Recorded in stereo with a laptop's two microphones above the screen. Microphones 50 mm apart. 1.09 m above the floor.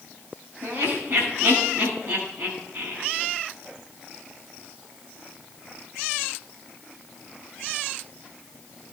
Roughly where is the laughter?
Right.